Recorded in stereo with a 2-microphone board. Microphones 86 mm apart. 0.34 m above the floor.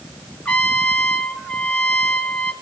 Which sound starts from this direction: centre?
A trumpet, at 0.5 s.